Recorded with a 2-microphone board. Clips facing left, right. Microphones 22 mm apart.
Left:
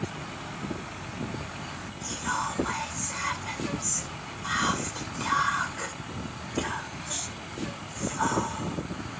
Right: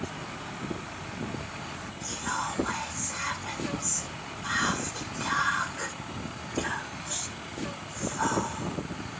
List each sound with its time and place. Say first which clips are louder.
2.0 s whispering: left 2 dB; 10° left (ahead or behind), 1.9 m